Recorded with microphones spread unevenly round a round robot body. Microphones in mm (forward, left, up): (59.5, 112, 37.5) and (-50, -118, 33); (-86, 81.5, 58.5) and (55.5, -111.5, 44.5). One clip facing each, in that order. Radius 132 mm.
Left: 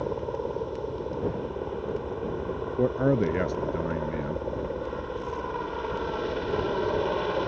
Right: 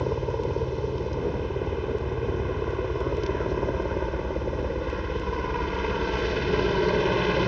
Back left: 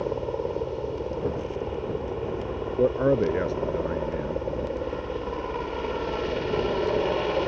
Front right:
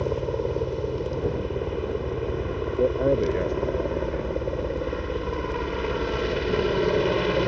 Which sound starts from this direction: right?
A helicopter, at 0.0 s.